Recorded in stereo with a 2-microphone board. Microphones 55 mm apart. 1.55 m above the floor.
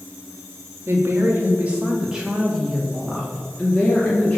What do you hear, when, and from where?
0.9 s a woman speaking: 45° right (ahead or behind), 1.3 m; by 4.4 s 25° left (ahead or behind), 2.5 m